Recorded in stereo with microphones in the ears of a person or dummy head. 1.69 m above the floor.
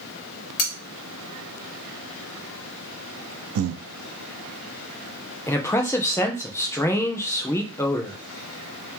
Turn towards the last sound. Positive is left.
turn(degrees=20)  # may be behind; listen again after turning